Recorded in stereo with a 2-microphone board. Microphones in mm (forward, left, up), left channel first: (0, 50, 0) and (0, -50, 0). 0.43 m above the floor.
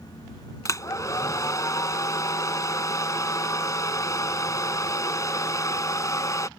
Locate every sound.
0.7 s a hair dryer: 35° left (ahead or behind)